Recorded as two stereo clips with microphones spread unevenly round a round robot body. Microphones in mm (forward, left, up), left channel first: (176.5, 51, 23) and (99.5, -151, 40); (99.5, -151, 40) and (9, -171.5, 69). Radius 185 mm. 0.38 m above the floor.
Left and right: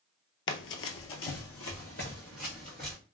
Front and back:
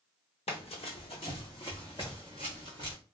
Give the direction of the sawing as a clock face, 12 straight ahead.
I don't hear sawing.